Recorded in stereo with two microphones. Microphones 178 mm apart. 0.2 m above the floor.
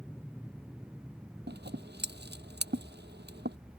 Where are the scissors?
75° right (ahead or behind).